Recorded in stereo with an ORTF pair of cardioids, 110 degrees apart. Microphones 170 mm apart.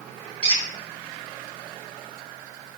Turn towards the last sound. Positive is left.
turn(degrees=-35)